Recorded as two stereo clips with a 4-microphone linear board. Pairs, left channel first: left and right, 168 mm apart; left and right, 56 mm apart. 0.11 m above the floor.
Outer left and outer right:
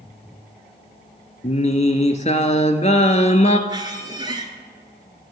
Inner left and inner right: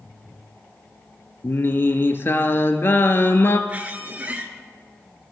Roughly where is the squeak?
Right.